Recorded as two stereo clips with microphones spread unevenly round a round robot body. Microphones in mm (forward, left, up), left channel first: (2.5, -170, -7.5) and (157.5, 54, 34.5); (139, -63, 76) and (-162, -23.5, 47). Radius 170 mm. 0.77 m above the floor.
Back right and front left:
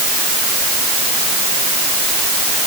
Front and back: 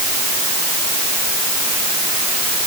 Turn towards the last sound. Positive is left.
No sound to turn to.